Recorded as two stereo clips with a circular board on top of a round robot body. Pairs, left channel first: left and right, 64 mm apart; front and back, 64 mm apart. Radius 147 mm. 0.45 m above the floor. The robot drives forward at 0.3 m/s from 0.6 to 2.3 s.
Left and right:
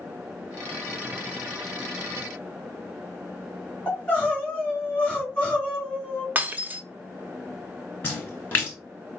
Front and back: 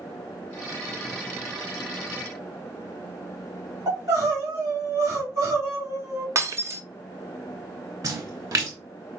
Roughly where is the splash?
Behind left.